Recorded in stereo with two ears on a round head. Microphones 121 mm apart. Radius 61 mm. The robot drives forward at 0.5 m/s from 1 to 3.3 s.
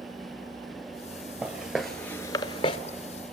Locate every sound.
1.4 s footsteps: 10° right (ahead or behind), 1.7 m; by 2.8 s 35° left (ahead or behind), 1.2 m